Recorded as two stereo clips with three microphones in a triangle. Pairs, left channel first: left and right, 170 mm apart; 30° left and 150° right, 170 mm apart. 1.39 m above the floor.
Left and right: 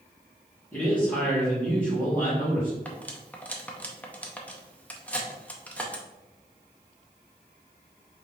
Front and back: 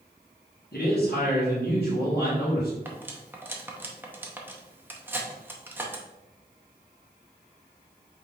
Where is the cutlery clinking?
155° left, 0.7 m.